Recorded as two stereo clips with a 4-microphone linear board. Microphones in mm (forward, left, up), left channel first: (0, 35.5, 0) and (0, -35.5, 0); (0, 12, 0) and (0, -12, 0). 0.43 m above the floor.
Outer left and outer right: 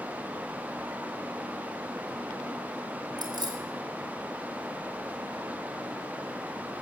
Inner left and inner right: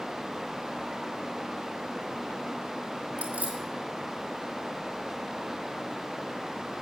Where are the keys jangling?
75° right (ahead or behind), 1.7 m.